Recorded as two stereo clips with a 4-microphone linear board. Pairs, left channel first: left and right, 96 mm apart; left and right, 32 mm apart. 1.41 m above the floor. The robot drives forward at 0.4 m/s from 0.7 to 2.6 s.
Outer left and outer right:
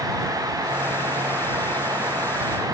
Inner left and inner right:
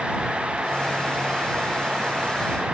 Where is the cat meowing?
I don't hear a cat meowing.